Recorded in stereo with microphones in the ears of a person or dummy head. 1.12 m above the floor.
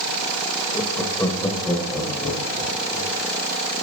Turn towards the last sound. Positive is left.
turn(degrees=5)  # may be behind; listen again after turning